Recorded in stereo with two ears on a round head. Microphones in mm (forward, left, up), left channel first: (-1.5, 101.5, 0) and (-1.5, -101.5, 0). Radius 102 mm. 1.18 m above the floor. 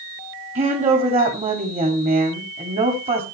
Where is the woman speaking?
30° right (ahead or behind), 2.5 m.